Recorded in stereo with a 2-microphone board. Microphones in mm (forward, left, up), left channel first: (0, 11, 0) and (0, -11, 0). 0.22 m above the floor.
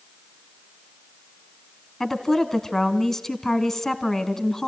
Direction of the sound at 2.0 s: 15° left (ahead or behind).